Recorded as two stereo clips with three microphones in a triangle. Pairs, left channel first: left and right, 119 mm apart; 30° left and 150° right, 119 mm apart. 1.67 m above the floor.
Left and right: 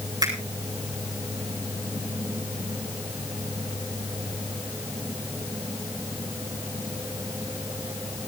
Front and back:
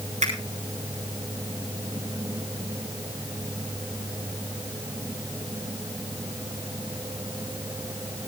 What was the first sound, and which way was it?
A finger snap, 145° right.